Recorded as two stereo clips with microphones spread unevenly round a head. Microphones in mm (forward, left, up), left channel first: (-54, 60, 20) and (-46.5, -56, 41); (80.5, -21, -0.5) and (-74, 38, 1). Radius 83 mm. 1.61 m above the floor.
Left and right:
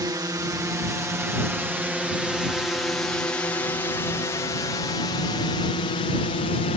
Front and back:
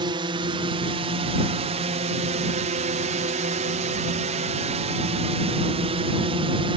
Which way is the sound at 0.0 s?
145° right.